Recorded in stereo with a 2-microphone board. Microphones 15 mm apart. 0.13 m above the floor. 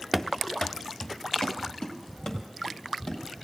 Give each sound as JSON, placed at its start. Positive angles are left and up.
{"t": 0.1, "sound": "running footsteps", "side_deg": 10, "distance_m": 0.7}